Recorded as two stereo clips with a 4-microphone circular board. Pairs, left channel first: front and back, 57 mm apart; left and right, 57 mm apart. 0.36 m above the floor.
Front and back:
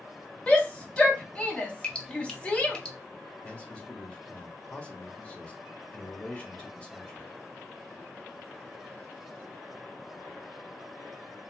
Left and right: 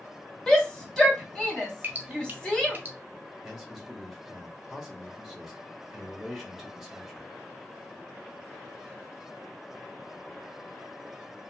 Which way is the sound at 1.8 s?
65° right.